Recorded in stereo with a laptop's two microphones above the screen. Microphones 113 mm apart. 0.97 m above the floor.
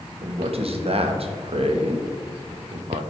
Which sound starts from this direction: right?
A man speaking, at 0.2 s.